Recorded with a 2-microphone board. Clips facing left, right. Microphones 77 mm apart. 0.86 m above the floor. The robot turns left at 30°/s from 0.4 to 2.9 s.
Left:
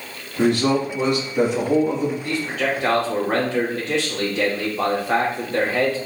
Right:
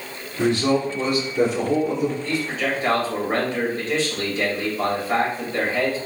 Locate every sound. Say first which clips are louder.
0.4 s a man speaking: left 1 dB; 95° left, 1.9 m; by 2.1 s 45° left, 1.9 m
2.2 s a man speaking: left 1 dB; 55° left (ahead or behind), 1.8 m; by 6.0 s 75° left (ahead or behind), 1.8 m